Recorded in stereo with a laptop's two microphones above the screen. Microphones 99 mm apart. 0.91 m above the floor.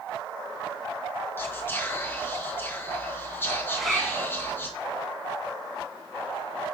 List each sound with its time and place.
1.4 s whispering: 20° left (ahead or behind), 0.8 m
3.7 s a zipper: 5° right (ahead or behind), 2 m